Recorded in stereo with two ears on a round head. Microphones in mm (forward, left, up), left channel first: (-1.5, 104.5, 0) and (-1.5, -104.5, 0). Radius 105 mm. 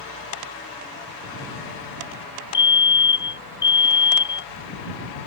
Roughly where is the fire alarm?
Centre.